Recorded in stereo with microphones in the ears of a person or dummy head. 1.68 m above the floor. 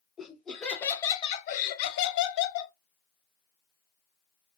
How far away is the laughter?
About 1.1 m.